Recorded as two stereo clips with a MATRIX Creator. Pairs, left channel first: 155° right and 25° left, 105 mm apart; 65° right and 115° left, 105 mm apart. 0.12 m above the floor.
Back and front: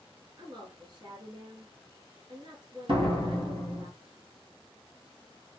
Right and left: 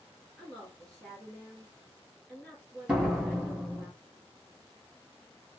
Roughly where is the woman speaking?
Ahead.